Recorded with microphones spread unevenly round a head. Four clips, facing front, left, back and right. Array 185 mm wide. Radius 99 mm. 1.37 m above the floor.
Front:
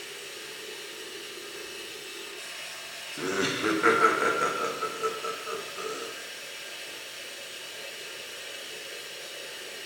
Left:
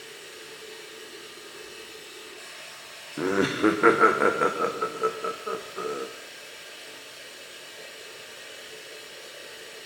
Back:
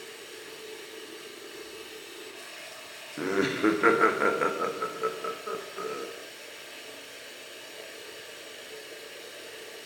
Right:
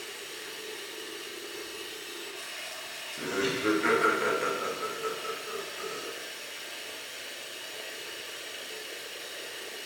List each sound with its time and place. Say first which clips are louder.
0.0 s running water: right 1 dB, front 1 dB; 130° right, 1.3 m
3.2 s laughter: left 7 dB, back 3 dB; 90° left, 0.7 m